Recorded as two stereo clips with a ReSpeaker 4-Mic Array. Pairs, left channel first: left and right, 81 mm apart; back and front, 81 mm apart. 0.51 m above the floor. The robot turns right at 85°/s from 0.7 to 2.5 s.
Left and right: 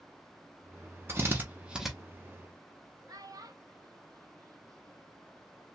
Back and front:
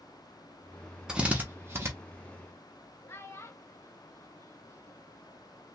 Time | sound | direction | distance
1.1 | a drill | 75° right | 0.7 m
3.1 | a child speaking | 125° right | 0.6 m